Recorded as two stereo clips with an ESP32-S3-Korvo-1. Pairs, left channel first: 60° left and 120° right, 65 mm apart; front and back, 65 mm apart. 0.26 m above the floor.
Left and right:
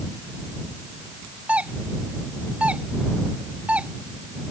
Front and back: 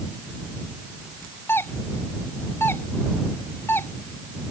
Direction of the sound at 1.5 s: 50° right.